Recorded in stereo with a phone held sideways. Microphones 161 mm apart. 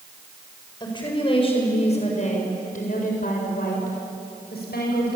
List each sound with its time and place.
0.8 s a woman speaking: 30° left (ahead or behind), 7 m; by 5.2 s 85° left, 8 m